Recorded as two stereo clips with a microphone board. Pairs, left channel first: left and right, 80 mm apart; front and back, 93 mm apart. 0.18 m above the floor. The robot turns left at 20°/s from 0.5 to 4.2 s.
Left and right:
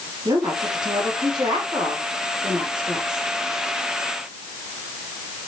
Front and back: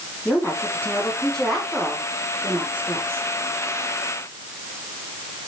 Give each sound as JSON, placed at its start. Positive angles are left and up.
{"t": 0.2, "sound": "a woman speaking", "azimuth_deg": -65, "distance_m": 7.0}